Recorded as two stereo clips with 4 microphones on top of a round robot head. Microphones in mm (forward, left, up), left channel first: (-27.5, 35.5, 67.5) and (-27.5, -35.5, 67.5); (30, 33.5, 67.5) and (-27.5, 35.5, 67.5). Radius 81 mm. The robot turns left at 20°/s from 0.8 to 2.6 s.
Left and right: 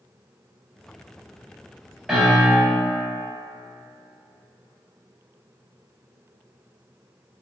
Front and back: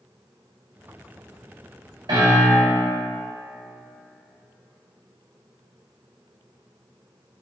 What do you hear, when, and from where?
2.1 s a piano: 175° right, 1.3 m; by 2.8 s 175° left, 1.3 m